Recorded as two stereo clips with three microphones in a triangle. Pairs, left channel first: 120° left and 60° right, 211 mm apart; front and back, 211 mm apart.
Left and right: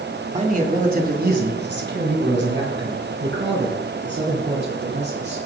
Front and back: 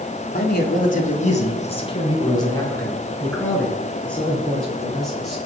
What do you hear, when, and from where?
0.3 s a man speaking: 15° right, 1.6 m; by 5.5 s 90° right, 4 m